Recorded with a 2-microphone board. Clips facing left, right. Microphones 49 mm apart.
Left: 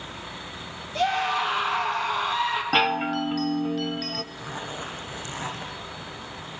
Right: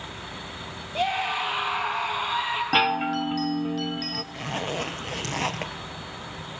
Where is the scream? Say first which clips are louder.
Left 2 dB; 10° right (ahead or behind), 5 m.